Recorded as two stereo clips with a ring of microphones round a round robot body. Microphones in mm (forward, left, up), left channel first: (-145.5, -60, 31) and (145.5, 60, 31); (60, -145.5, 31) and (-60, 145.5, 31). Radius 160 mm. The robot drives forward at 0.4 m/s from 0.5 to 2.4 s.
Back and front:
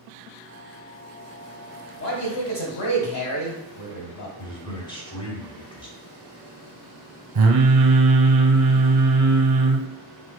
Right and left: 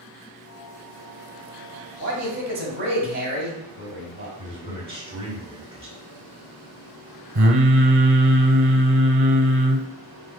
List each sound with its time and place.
2.0 s a man speaking: 170° left, 1.3 m; by 4.3 s 175° left, 1.4 m
4.4 s a man speaking: 155° left, 1.2 m
7.3 s singing: 60° left, 0.5 m